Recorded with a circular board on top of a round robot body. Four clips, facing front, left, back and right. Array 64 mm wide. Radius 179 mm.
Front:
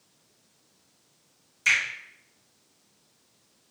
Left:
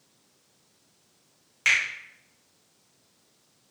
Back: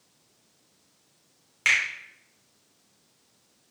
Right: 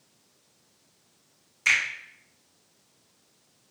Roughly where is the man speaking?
I don't hear a man speaking.